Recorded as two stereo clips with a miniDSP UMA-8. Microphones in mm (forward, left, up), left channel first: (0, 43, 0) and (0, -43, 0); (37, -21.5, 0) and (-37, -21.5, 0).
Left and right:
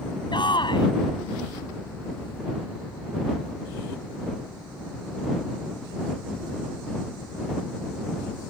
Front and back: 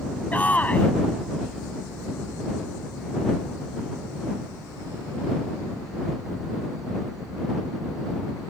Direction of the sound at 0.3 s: 65° left.